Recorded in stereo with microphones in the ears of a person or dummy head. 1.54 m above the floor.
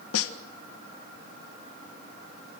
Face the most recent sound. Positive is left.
turn(degrees=85)